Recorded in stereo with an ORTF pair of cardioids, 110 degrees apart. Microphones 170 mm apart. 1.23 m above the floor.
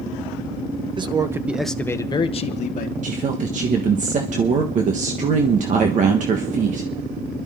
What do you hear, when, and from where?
1.0 s a man speaking: 30° right, 1.2 m; by 2.9 s 55° left, 1.4 m
3.0 s a woman speaking: 50° right, 1.4 m